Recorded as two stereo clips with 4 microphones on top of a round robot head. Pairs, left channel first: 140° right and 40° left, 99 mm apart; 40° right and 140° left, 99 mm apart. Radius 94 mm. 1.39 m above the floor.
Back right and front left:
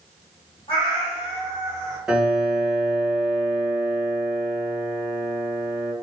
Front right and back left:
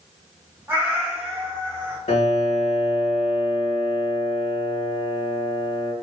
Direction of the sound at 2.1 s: 45° right.